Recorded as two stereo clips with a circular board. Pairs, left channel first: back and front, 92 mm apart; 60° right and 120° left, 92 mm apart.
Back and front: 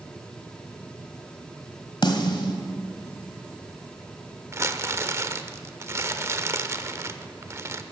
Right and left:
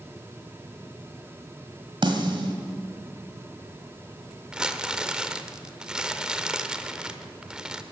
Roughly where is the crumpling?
Ahead left.